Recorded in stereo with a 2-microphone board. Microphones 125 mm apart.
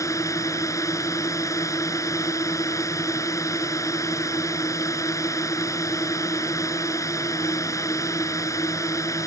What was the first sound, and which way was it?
A drone, 25° left (ahead or behind).